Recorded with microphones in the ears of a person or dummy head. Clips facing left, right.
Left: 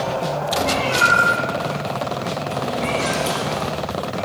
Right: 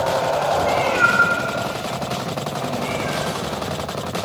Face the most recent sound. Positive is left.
turn(degrees=60)  # may be behind; listen again after turning